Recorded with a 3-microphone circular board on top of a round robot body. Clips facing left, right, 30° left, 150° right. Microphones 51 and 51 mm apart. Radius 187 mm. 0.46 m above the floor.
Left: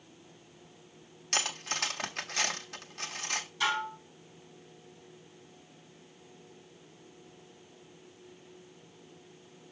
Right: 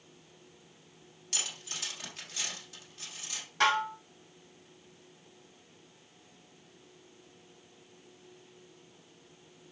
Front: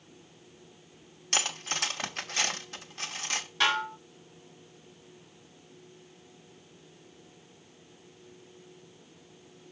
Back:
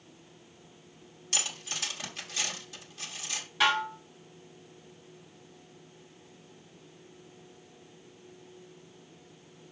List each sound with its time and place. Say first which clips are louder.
1.3 s cutlery clinking: left 7 dB, front 5 dB; 65° left, 1.2 m
3.6 s dishes clattering: right 5 dB, back 1 dB; 60° right, 1.8 m